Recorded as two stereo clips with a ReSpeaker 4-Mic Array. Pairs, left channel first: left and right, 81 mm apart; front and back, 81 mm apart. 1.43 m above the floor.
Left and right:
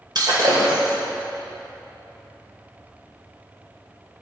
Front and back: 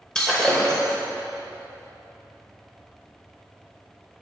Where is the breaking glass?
80° right, 2 m.